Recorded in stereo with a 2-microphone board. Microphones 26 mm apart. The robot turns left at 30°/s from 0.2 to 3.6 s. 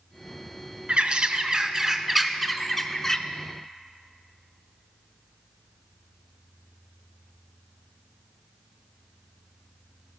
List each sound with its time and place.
0.9 s a bird: 135° right, 0.5 m; by 3.2 s 155° left, 0.5 m